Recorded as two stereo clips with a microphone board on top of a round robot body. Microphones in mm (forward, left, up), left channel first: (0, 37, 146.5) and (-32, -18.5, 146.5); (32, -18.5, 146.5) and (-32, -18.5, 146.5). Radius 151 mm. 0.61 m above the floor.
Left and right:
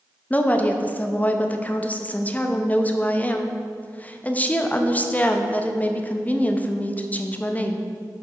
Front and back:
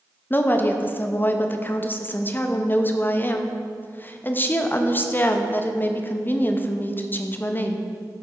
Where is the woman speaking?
20° left, 0.8 m.